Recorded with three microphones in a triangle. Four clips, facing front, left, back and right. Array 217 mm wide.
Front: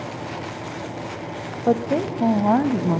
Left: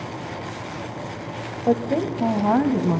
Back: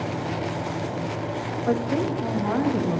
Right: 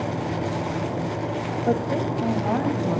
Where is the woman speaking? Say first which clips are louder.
Left 4 dB, front 4 dB; 15° left, 1.1 m; by 3.0 s 35° left, 2 m.